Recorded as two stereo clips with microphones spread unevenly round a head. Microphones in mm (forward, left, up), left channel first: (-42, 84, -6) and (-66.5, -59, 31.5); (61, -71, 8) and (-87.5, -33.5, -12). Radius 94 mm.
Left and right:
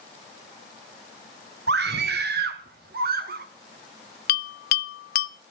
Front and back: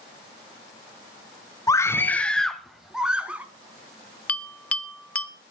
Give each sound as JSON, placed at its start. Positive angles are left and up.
{"t": 1.7, "sound": "a scream", "azimuth_deg": -80, "distance_m": 1.2}
{"t": 4.3, "sound": "a bell", "azimuth_deg": 60, "distance_m": 0.5}